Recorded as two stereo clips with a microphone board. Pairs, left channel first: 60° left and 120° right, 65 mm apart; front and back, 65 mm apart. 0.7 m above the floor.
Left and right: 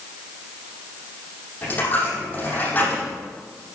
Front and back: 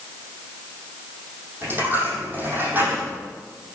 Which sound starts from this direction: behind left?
A dropped coin, at 1.6 s.